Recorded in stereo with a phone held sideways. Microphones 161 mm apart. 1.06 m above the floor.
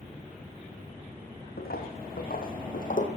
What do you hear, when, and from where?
1.6 s footsteps: 75° left (ahead or behind), 4 m; by 3.1 s 55° left (ahead or behind), 3 m